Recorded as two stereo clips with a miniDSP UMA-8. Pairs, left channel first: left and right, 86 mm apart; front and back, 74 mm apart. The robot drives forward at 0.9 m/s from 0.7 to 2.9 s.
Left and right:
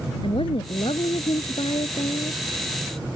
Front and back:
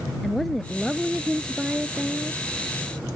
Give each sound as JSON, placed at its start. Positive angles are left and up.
{"t": 0.2, "sound": "a woman speaking", "azimuth_deg": 85}